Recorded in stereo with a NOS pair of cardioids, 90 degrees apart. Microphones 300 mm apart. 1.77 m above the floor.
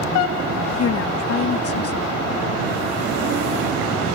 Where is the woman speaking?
50° left.